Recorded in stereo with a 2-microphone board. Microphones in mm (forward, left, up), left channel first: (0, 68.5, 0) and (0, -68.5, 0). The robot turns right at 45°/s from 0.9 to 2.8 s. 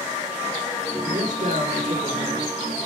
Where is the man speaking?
115° right, 4 m; by 2.5 s 45° right, 4 m.